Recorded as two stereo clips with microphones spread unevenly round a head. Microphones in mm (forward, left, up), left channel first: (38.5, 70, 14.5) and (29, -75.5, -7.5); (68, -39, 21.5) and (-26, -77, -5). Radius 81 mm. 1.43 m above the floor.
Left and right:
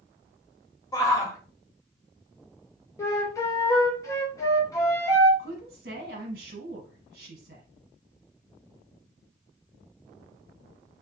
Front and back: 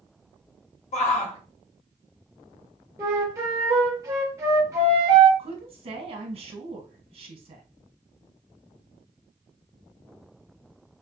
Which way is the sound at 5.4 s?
135° right.